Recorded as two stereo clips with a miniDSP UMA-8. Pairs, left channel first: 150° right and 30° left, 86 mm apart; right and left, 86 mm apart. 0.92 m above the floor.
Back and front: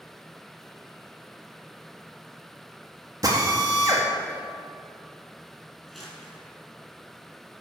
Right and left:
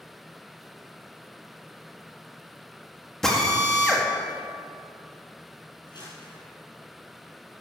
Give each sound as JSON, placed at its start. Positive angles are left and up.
{"t": 3.2, "sound": "a drill", "azimuth_deg": -5, "distance_m": 1.8}
{"t": 5.9, "sound": "crumpling", "azimuth_deg": -60, "distance_m": 4.5}